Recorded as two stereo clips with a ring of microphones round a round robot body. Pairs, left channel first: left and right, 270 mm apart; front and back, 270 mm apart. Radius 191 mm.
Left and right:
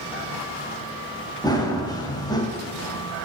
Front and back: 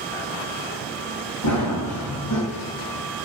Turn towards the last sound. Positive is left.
turn(degrees=15)